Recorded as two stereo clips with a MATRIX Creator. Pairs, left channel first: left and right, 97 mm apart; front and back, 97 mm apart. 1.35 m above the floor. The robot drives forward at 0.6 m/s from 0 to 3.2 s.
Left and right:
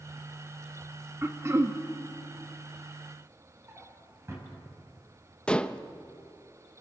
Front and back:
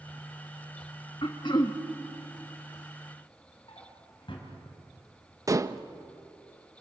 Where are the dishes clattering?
160° left, 0.6 m.